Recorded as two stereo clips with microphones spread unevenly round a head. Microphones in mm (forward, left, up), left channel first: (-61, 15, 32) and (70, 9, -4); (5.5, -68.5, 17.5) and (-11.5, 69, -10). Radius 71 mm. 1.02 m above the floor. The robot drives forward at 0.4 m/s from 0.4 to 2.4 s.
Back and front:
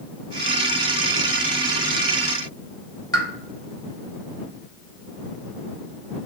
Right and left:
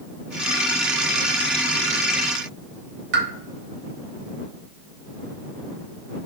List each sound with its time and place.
3.1 s a pop: 115° left, 0.6 m